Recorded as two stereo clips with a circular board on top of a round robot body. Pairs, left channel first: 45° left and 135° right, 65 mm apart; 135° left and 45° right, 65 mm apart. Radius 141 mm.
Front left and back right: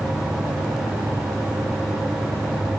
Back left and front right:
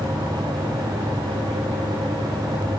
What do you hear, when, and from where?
Only background noise.